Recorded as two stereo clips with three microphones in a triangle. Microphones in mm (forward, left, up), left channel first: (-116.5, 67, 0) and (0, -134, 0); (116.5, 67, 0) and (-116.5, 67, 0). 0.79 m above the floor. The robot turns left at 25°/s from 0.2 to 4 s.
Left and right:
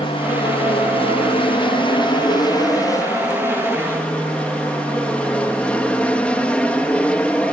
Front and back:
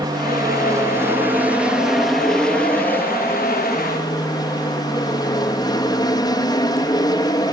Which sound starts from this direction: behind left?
An aircraft, at 0.0 s.